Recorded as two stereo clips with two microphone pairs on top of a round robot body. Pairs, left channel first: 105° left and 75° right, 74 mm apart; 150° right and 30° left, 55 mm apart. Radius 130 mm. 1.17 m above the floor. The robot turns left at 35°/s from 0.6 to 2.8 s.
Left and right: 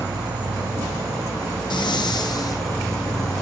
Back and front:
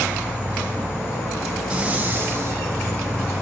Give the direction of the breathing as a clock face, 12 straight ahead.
9 o'clock.